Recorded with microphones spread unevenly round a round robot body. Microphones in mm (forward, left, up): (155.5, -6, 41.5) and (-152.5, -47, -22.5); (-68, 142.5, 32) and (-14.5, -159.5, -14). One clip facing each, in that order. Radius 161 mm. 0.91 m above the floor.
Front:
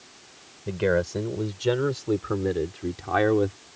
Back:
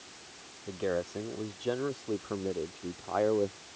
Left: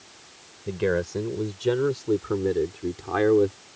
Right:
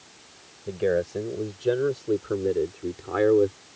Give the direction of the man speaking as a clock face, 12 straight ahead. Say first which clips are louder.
Front 8 dB, right 1 dB; 11 o'clock.